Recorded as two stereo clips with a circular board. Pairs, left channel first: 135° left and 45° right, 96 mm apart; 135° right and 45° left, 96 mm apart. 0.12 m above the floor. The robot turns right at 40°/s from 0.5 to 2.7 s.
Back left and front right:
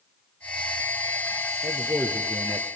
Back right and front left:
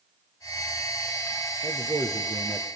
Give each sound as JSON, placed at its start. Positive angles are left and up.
{"t": 1.6, "sound": "a man speaking", "azimuth_deg": -5, "distance_m": 2.0}